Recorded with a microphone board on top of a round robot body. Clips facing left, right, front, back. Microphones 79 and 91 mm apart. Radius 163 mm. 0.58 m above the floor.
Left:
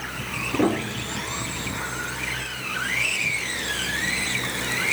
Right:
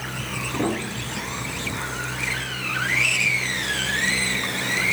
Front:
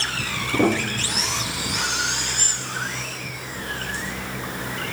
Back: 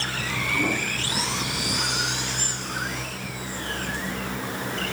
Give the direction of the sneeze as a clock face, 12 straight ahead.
No sneeze in this recording.